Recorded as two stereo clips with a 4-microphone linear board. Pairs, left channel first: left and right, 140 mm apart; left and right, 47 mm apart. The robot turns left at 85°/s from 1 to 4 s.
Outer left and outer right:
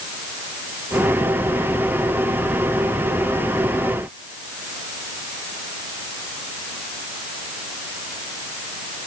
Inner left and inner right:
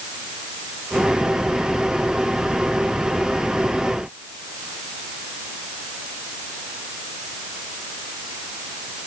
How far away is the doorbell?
No doorbell in this recording.